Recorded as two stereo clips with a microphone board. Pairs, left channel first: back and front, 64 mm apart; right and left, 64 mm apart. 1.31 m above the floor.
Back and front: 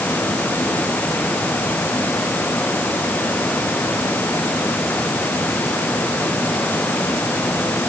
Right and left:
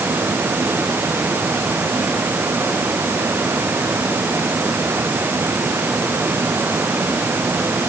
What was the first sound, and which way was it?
Only background noise.